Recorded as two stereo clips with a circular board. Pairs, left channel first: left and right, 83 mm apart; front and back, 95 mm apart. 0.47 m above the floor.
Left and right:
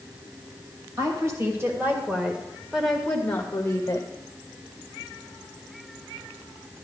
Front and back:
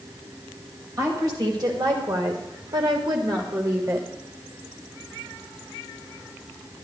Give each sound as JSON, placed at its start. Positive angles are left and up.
{"t": 1.0, "sound": "a woman speaking", "azimuth_deg": -130, "distance_m": 2.5}